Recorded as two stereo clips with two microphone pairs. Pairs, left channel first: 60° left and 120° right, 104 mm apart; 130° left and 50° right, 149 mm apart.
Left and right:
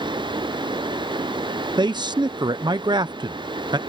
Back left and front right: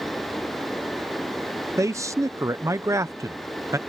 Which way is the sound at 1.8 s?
110° right.